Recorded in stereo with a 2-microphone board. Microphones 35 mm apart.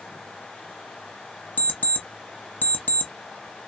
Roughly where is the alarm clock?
Left.